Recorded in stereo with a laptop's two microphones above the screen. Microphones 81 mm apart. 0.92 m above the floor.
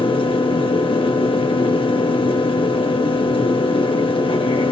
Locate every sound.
0.0 s a fan: 90° left, 1.1 m